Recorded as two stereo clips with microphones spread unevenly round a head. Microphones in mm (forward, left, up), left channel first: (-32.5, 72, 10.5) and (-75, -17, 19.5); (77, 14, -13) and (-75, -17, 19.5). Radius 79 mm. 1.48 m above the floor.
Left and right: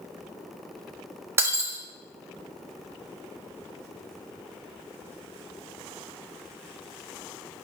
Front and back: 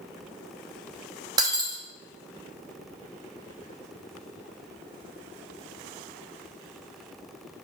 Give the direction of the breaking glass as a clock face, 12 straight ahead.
5 o'clock.